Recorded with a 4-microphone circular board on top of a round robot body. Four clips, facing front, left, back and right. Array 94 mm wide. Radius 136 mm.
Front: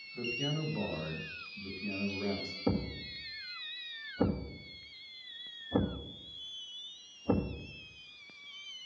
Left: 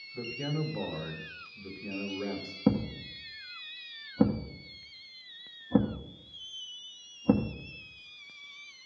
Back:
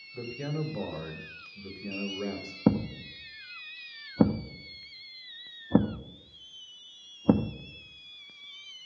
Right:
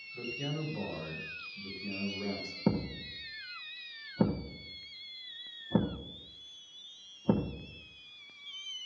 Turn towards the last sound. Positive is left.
turn(degrees=175)